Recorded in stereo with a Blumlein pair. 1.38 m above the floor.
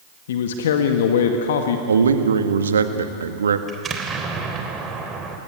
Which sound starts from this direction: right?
A man speaking, at 1.9 s.